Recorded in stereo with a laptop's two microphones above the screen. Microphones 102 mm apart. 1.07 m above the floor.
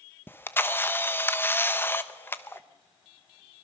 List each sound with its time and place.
0.3 s a camera shutter: 20° left (ahead or behind), 0.7 m